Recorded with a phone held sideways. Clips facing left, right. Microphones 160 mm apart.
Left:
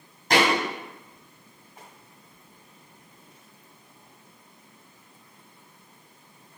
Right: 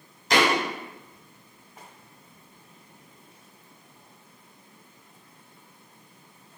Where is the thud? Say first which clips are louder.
Even; 50° left (ahead or behind), 1.2 m.